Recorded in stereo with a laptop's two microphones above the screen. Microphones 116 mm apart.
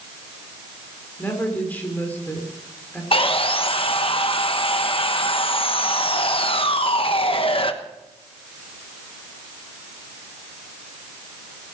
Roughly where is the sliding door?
I don't hear a sliding door.